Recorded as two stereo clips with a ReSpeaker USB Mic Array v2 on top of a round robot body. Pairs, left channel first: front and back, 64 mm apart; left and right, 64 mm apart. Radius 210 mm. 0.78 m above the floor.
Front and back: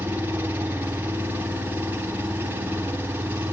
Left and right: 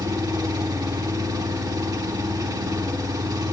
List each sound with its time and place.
0.0 s an engine running: 115° right, 3.5 m